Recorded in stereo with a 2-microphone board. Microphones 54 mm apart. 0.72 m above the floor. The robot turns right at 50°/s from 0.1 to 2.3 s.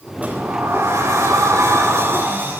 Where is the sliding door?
150° right, 7 m; by 2.6 s 45° right, 7 m.